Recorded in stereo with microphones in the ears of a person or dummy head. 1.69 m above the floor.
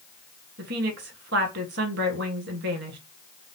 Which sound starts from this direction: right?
A woman speaking, at 0.6 s.